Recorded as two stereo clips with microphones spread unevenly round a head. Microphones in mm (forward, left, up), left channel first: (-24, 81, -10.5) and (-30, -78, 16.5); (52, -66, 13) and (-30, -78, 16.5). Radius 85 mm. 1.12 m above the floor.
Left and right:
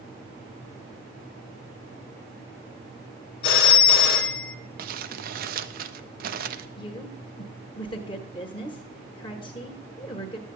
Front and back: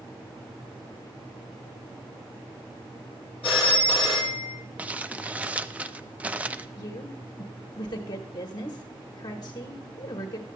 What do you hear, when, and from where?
3.4 s a phone ringing: 110° left, 1.3 m
4.8 s crumpling: 100° right, 0.5 m
6.8 s a woman speaking: 40° left, 1.1 m